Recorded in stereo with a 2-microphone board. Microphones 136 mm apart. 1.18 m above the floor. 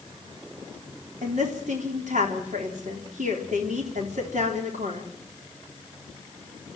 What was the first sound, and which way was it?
A woman speaking, 80° right.